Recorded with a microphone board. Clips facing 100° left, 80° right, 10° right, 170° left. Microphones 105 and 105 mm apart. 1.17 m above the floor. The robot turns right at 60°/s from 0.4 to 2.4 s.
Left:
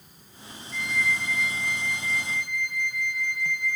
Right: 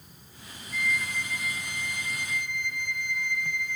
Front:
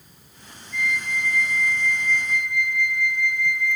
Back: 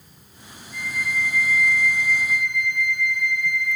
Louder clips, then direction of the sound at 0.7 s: Left 2 dB, front 1 dB; 155° right.